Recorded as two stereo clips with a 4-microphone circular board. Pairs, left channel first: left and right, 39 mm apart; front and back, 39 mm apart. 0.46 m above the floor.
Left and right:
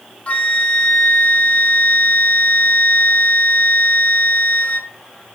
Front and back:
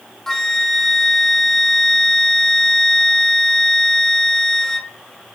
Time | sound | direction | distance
0.3 | a flute | 70° left | 1.3 m